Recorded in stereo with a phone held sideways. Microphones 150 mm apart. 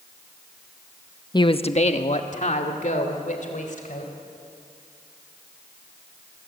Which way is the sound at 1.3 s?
30° left (ahead or behind).